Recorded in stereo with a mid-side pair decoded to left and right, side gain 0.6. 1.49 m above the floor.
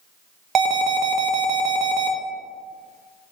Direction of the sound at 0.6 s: 45° right.